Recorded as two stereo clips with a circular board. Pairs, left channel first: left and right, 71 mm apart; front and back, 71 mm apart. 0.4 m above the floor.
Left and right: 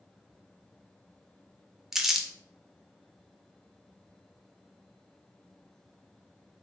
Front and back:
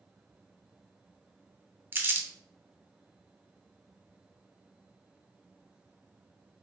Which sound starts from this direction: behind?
Crumpling, at 1.9 s.